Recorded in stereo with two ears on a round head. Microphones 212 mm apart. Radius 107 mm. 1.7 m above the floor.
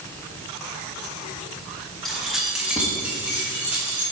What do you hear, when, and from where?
2.0 s keys jangling: centre (ahead or behind), 1.1 m; by 4.0 s 10° right (ahead or behind), 2.5 m